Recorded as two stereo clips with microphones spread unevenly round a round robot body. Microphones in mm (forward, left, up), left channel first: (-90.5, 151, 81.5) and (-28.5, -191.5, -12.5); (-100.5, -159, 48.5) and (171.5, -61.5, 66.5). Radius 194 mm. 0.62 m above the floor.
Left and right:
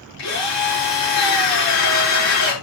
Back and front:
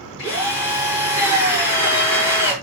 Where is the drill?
145° left, 7 m.